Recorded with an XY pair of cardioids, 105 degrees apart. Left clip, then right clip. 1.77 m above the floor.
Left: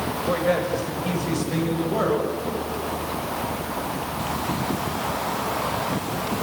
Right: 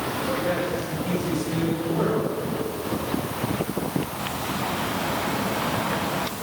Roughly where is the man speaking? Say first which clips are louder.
Left 5 dB; ahead left.